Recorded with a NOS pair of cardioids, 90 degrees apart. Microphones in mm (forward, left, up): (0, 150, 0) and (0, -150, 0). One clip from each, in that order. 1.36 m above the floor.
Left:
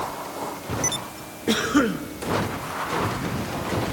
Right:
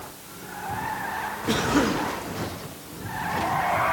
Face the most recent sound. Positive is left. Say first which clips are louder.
# left 2 dB
turn(degrees=25)